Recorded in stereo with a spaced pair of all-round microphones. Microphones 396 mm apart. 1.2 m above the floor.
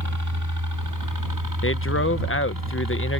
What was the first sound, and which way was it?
A helicopter, 45° right (ahead or behind).